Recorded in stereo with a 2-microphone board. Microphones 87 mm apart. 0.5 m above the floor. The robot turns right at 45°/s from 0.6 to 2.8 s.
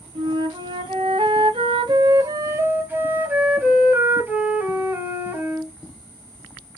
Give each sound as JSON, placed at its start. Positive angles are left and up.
{"t": 0.1, "sound": "a flute", "azimuth_deg": -120, "distance_m": 1.0}